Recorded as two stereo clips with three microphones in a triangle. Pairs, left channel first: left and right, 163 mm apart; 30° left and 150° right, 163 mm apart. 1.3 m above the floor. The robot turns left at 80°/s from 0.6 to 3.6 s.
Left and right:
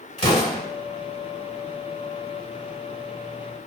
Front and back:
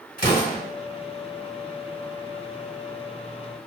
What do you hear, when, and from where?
0.2 s an explosion: 50° left, 1.5 m